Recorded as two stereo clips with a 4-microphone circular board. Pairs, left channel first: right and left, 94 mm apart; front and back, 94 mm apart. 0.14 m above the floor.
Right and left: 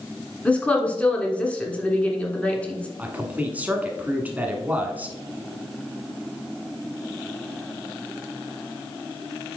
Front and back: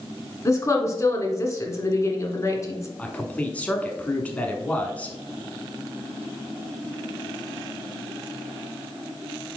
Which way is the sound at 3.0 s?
50° left.